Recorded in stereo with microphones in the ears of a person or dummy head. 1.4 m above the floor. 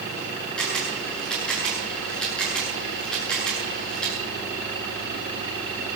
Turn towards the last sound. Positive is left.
turn(degrees=5)  # may be behind; listen again after turning